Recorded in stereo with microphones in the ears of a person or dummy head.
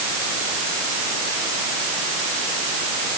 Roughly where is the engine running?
I don't hear an engine running.